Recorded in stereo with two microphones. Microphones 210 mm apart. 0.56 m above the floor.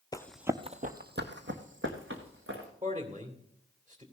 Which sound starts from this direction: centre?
Running footsteps, at 0.1 s.